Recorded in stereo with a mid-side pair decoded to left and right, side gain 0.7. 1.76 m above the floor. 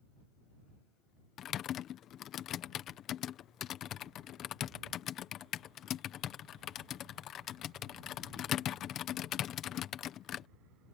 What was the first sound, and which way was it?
Typing on a keyboard, 45° left.